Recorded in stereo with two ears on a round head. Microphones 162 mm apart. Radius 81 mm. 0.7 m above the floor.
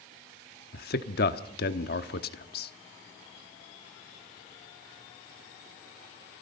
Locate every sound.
0.7 s a man speaking: 55° left (ahead or behind), 1.1 m